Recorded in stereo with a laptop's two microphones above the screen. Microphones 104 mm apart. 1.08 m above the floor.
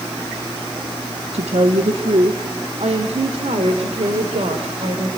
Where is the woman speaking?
80° right, 1.4 m; by 5.1 s 90° right, 4 m.